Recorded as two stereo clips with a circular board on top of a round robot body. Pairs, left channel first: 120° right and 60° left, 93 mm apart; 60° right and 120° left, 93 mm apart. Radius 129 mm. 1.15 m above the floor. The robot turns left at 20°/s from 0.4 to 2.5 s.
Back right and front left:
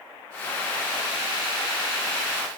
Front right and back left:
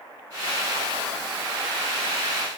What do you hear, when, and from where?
Only background noise.